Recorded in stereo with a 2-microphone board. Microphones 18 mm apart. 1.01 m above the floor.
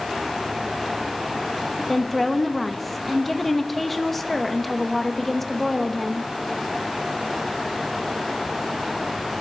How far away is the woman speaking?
About 1.0 m.